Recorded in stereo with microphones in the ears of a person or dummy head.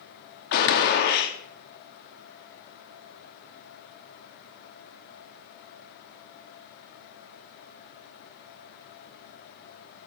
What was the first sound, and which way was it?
A gunshot, 60° left (ahead or behind).